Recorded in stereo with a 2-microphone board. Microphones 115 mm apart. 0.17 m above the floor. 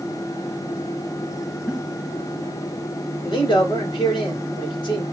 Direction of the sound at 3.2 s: 45° left (ahead or behind).